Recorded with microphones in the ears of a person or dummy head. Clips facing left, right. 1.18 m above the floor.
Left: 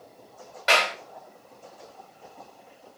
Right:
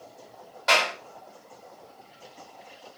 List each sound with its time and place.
0.7 s a clap: 20° left (ahead or behind), 3.5 m